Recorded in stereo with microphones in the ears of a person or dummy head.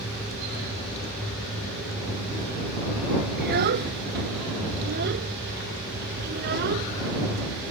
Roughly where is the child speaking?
Right.